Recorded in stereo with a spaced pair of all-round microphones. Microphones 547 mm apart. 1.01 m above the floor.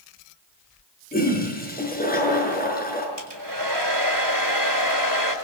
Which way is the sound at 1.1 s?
15° left (ahead or behind).